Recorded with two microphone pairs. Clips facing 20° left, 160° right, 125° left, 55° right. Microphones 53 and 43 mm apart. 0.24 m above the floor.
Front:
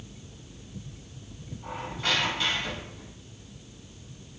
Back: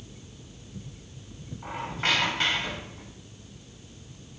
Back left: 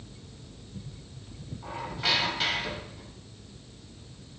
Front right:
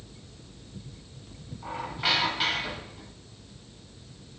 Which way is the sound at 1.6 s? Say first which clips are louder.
Back 3 dB, front right 2 dB; 130° right.